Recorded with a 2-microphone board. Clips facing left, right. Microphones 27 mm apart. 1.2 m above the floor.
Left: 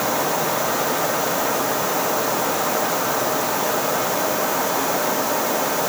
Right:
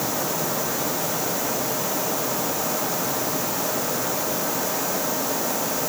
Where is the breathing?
No breathing in this recording.